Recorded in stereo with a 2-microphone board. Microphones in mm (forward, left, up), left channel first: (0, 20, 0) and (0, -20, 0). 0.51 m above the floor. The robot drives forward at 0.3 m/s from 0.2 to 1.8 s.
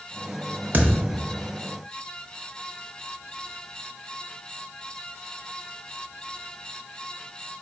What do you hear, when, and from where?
0.7 s a thud: 55° right (ahead or behind), 0.7 m; by 1.2 s 65° right (ahead or behind), 0.6 m